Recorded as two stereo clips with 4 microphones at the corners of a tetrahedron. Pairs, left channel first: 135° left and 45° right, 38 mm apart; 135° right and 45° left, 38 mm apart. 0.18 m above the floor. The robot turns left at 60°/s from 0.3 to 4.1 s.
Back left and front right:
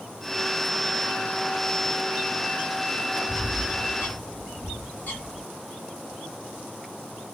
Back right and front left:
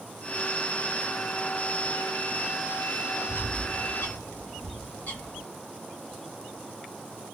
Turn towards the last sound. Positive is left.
turn(degrees=170)